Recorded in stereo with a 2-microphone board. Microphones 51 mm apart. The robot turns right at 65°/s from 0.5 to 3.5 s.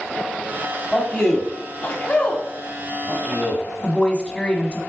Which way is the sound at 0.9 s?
5° left (ahead or behind).